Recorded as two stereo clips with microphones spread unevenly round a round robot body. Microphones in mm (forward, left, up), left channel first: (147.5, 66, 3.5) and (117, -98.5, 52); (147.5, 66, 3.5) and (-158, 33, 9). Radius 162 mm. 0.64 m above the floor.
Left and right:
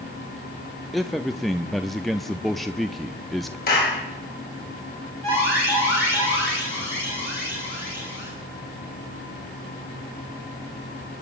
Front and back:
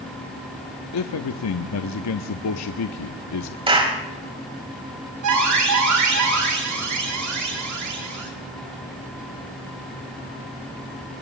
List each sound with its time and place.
0.9 s a man speaking: 5° left, 0.9 m
3.7 s a clap: 110° left, 4 m
5.2 s an alarm: 155° left, 9 m